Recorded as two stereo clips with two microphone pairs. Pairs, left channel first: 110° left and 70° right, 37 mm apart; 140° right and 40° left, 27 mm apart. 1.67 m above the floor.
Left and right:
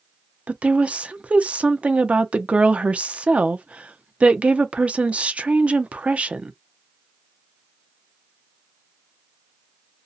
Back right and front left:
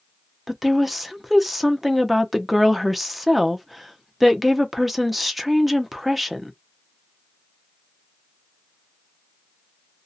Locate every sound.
0.5 s a woman speaking: 30° right, 0.5 m